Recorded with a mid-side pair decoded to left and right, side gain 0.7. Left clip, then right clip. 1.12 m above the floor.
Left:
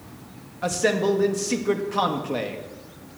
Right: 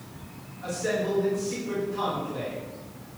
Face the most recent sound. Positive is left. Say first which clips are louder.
# left 6 dB
turn(degrees=55)